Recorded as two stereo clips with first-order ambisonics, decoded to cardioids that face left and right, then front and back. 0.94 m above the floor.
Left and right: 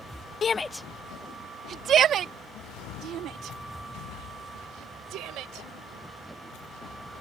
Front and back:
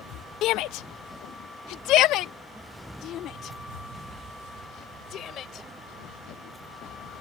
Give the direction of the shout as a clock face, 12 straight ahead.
11 o'clock.